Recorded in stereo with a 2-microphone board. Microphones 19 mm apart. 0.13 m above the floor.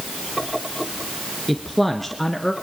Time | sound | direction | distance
1.5 | a man speaking | centre (ahead or behind) | 1.5 m